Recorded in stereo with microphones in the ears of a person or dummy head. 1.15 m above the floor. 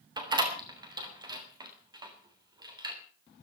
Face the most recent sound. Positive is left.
turn(degrees=-30)  # may be behind; listen again after turning